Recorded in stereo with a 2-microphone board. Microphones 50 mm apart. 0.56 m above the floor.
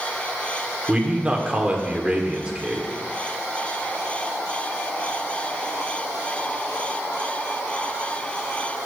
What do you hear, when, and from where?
0.9 s a man speaking: 20° right (ahead or behind), 1.9 m